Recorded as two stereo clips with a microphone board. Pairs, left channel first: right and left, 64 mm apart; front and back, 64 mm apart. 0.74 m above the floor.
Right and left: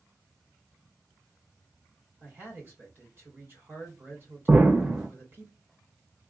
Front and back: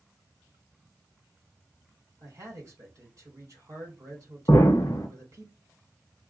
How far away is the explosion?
About 0.7 m.